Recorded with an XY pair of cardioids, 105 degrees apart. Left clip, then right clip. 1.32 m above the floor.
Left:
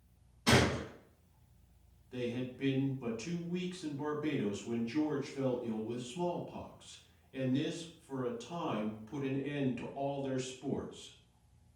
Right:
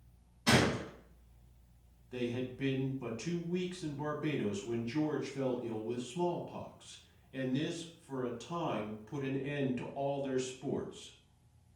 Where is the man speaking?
15° right, 1.0 m.